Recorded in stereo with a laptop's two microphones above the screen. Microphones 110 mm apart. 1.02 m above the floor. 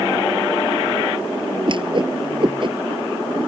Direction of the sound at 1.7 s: 50° right (ahead or behind).